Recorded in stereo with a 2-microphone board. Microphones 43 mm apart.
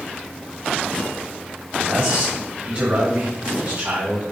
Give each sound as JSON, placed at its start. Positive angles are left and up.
{"t": 1.8, "sound": "a man speaking", "side_deg": -45, "distance_m": 1.1}